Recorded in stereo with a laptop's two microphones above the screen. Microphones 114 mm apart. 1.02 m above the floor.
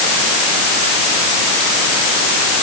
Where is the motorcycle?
No motorcycle in this recording.